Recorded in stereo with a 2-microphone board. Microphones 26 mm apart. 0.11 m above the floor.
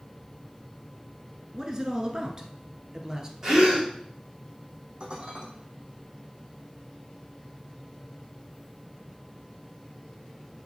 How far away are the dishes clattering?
About 3.5 m.